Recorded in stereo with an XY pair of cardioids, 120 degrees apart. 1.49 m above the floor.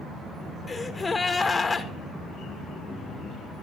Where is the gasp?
25° left, 2 m.